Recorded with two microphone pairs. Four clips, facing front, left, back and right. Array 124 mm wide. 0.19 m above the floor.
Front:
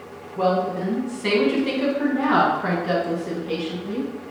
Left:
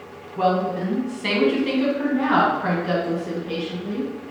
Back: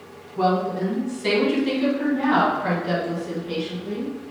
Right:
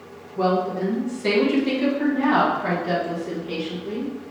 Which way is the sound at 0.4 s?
100° left.